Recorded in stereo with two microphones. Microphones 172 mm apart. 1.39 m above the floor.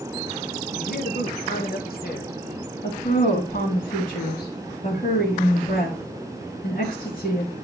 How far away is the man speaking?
About 1.7 m.